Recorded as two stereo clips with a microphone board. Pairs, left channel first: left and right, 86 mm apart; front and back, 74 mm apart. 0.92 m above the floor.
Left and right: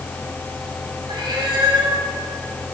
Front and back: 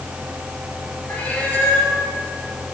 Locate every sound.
1.1 s a cat meowing: 70° right, 3 m